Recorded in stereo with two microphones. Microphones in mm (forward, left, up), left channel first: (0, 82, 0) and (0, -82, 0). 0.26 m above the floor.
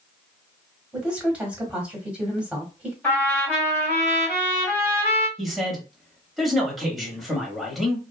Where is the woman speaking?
5° right (ahead or behind), 1.0 m.